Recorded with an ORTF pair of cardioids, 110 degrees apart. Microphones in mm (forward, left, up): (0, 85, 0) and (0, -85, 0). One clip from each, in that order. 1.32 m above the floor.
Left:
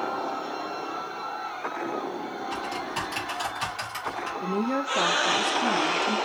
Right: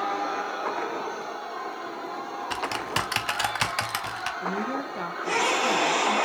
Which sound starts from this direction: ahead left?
A woman speaking, at 4.4 s.